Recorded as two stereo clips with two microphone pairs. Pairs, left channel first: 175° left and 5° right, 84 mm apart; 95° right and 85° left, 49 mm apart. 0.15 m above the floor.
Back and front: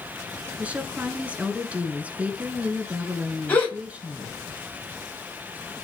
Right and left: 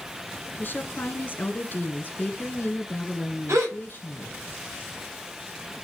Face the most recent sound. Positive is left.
turn(degrees=105)